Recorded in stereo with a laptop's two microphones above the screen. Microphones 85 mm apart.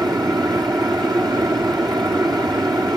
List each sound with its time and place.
0.0 s a fan: 60° right (ahead or behind), 1.9 m